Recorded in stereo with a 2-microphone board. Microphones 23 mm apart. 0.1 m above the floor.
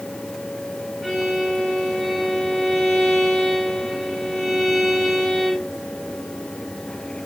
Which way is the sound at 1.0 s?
Centre (ahead or behind).